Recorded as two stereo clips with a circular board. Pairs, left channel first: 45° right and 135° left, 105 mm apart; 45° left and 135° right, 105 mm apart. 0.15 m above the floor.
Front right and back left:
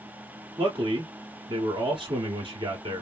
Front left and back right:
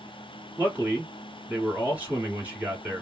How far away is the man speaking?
About 1.8 m.